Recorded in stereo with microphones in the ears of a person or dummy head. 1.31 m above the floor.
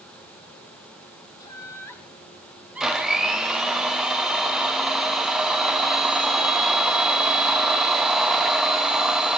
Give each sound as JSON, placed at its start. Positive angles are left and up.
{"t": 1.4, "sound": "laughter", "side_deg": 20, "distance_m": 3.0}
{"t": 2.8, "sound": "a blender", "side_deg": 0, "distance_m": 2.5}